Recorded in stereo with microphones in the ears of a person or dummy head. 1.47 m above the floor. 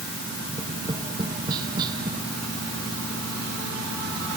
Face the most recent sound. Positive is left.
turn(degrees=-25)  # may be behind; listen again after turning